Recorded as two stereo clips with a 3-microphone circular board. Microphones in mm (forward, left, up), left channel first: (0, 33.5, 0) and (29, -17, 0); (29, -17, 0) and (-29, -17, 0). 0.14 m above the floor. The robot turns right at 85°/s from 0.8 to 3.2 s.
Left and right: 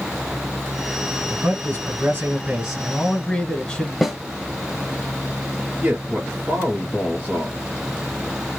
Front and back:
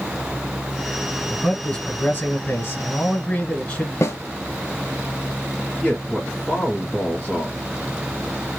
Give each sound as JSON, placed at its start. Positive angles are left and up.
{"t": 1.3, "sound": "a man speaking", "azimuth_deg": -105, "distance_m": 1.3}
{"t": 4.0, "sound": "a snare drum", "azimuth_deg": 30, "distance_m": 0.8}
{"t": 5.8, "sound": "a man speaking", "azimuth_deg": -35, "distance_m": 1.7}